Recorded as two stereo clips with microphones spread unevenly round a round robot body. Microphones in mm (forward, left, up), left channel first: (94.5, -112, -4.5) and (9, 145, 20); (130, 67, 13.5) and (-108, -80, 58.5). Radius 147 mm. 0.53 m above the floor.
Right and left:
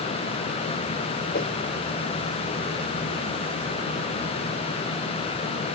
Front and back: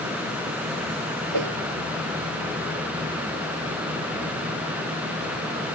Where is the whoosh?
135° right.